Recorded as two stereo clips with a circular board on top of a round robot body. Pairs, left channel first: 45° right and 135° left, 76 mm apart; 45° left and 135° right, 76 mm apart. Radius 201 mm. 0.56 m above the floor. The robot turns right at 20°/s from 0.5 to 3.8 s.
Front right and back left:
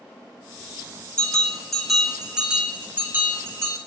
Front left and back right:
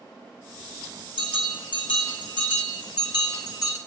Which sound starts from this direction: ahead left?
A bell, at 1.2 s.